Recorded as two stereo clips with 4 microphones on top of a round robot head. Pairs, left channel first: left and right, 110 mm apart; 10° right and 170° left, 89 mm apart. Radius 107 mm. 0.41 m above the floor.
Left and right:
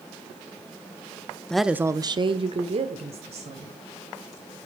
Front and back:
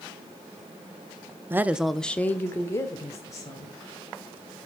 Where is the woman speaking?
165° left, 0.8 m; by 3.8 s 65° right, 2.5 m.